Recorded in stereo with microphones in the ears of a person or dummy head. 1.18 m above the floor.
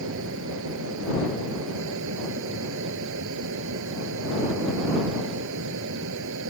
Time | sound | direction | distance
0.0 | a fan | 65° right (ahead or behind) | ?